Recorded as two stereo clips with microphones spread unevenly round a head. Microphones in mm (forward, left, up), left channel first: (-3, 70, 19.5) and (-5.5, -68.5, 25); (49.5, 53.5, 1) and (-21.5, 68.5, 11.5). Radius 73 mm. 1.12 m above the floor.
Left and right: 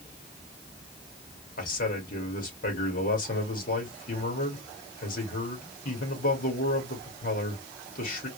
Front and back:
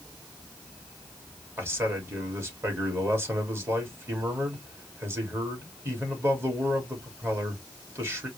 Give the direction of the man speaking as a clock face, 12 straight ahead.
8 o'clock.